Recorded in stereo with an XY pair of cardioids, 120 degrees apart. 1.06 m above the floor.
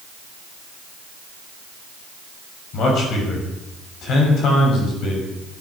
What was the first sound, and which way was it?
A man speaking, 65° left.